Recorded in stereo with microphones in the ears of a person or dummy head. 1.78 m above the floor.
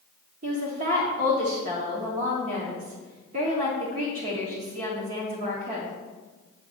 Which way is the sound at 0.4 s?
45° right (ahead or behind).